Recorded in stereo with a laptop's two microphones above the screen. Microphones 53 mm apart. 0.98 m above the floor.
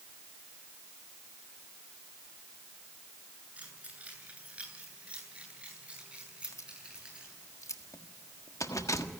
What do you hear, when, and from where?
3.6 s keys jangling: 25° right (ahead or behind), 9 m; by 7.4 s 15° right (ahead or behind), 12.5 m
6.4 s keys jangling: 75° left (ahead or behind), 1.4 m